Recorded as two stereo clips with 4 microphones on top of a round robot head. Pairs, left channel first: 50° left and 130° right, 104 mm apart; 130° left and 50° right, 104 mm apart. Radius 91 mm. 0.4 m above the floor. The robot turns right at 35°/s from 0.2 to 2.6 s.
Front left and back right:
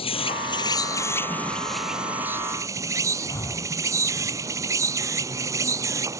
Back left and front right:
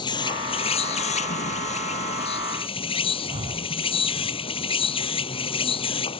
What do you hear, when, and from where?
0.0 s an insect: 85° left; by 6.2 s 165° left
3.3 s breathing: 15° right